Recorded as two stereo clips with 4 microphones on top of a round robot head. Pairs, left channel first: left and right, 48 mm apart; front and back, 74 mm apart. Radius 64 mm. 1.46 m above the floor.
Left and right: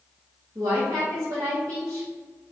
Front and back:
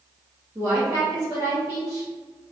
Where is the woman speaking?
110° right, 1.2 m.